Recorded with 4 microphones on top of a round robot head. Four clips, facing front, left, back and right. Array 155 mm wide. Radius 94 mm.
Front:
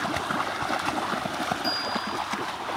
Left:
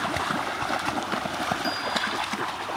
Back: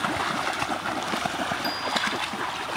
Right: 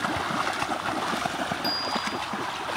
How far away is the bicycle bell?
About 9.5 m.